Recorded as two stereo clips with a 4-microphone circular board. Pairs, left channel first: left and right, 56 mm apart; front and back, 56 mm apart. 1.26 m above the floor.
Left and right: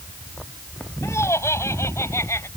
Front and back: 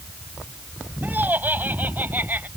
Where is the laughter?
125° left.